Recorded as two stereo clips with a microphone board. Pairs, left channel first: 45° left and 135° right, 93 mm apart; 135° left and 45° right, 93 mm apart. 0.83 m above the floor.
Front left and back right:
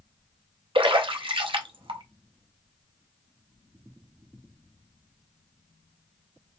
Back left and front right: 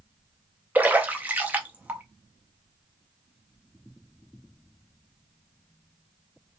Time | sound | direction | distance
0.8 | a splash | 115° right | 0.5 m